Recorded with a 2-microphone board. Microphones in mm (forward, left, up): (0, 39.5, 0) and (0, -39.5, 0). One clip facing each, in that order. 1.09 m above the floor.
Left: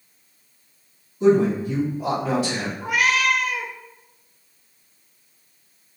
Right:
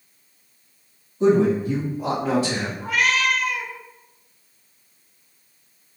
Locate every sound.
1.2 s a man speaking: 35° right (ahead or behind), 1.9 m
2.8 s a cat meowing: 10° left (ahead or behind), 0.6 m